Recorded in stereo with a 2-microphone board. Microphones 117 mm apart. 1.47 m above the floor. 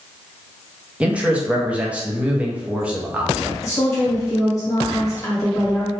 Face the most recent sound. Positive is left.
turn(degrees=25)  # may be behind; listen again after turning